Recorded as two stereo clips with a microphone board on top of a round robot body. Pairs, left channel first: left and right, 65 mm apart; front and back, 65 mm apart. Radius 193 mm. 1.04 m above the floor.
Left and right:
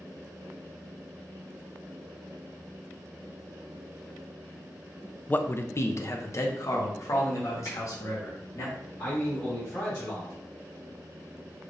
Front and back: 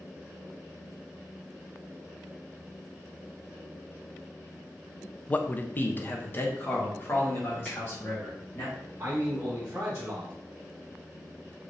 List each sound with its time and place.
5.3 s a man speaking: 45° left, 0.5 m; by 8.7 s 55° left, 2.0 m
7.7 s a finger snap: 70° left, 1.9 m
9.0 s a man speaking: 125° left, 1.5 m